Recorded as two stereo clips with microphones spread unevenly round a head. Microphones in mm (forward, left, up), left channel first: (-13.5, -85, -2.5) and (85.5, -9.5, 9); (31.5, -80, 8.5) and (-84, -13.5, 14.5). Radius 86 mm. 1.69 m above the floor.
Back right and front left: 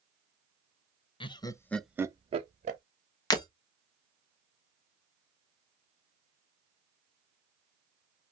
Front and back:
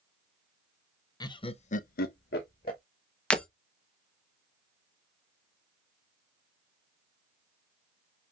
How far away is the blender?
No blender in this recording.